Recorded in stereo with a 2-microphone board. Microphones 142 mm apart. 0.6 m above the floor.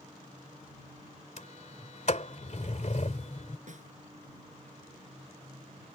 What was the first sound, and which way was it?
A sliding door, 55° left (ahead or behind).